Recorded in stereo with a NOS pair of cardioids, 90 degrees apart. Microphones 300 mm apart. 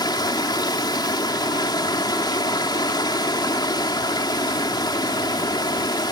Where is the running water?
15° left.